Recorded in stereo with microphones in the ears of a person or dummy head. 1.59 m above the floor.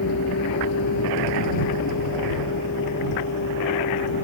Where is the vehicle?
75° left (ahead or behind); by 4.2 s 60° left (ahead or behind).